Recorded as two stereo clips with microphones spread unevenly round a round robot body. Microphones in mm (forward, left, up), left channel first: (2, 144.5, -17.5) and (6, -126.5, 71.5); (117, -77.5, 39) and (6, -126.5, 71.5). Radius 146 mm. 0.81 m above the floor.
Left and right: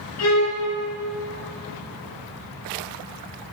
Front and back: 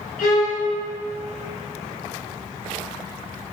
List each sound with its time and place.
0.2 s a violin: 55° left, 3.5 m